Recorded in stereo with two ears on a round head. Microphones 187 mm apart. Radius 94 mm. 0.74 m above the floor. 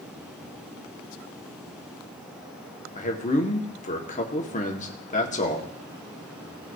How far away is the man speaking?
About 1.4 m.